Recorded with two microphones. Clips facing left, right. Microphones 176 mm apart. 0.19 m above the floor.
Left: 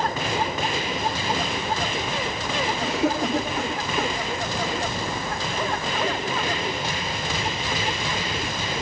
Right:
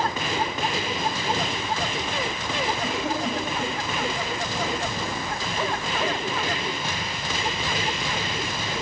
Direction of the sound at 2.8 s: 75° left (ahead or behind).